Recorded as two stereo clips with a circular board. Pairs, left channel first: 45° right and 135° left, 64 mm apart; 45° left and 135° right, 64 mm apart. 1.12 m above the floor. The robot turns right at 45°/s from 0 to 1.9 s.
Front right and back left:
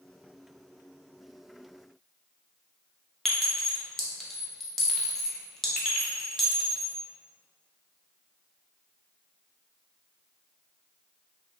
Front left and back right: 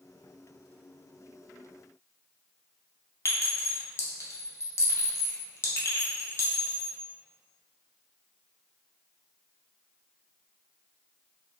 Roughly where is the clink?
Ahead left.